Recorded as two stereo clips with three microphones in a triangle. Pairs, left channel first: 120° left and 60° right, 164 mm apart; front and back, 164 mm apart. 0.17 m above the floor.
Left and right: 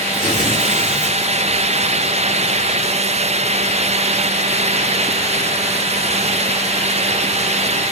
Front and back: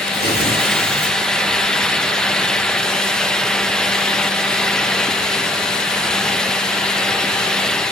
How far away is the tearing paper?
About 5 m.